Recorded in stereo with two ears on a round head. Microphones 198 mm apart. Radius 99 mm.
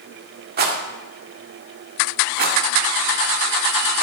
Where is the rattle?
45° right (ahead or behind), 1.7 m.